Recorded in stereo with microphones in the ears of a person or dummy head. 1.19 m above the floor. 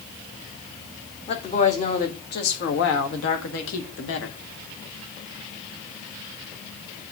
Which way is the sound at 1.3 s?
30° left (ahead or behind).